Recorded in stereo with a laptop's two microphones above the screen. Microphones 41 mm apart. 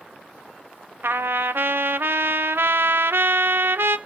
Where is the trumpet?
70° right (ahead or behind), 0.7 m.